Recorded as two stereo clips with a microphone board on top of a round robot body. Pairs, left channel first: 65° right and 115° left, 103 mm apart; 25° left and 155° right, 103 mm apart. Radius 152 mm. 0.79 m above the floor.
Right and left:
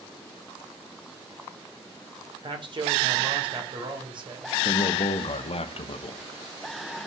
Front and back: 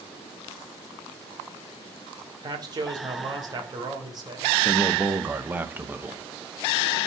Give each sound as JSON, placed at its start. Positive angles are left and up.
{"t": 2.4, "sound": "a man speaking", "azimuth_deg": 150, "distance_m": 3.5}
{"t": 4.7, "sound": "a man speaking", "azimuth_deg": -85, "distance_m": 1.4}